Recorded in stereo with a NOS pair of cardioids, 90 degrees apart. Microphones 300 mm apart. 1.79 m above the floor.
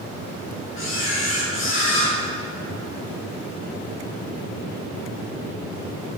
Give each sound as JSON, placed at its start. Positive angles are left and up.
{"t": 0.8, "sound": "a camera shutter", "azimuth_deg": 45, "distance_m": 2.5}